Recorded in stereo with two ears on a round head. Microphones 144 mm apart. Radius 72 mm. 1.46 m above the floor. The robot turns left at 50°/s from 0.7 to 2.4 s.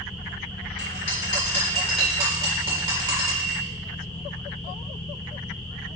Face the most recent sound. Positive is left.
turn(degrees=-30)